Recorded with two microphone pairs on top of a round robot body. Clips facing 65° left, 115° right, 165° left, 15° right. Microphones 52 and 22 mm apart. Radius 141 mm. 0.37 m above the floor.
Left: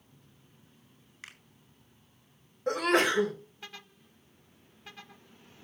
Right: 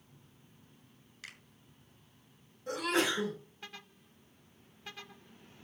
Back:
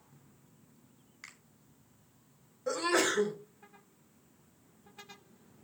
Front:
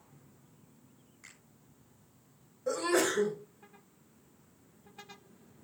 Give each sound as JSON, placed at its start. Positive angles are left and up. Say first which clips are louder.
{"t": 1.2, "sound": "a finger snap", "louder": "left 1 dB, back 4 dB", "azimuth_deg": 130, "distance_m": 4.0}
{"t": 2.7, "sound": "a sneeze", "louder": "left 6 dB, even", "azimuth_deg": 95, "distance_m": 2.5}